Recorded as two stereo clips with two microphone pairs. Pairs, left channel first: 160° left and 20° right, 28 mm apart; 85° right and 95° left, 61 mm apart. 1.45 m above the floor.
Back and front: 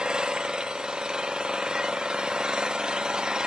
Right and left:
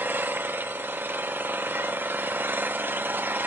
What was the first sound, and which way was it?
An engine running, 40° left.